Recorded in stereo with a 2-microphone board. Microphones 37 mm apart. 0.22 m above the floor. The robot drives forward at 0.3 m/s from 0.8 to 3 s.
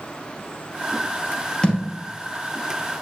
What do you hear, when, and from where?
1.6 s a thud: 20° left (ahead or behind), 1.9 m